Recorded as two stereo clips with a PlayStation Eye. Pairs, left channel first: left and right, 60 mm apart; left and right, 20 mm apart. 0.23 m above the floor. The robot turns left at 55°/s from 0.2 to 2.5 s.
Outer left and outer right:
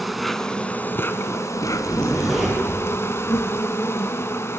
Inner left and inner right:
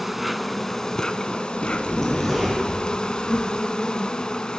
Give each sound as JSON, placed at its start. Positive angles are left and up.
{"t": 0.0, "sound": "an insect", "azimuth_deg": 180, "distance_m": 1.2}
{"t": 1.7, "sound": "a zipper", "azimuth_deg": 35, "distance_m": 6.0}